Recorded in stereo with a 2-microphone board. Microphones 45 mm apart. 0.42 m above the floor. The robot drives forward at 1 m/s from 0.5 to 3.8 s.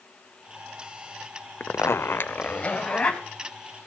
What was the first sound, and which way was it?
A zipper, 45° left (ahead or behind).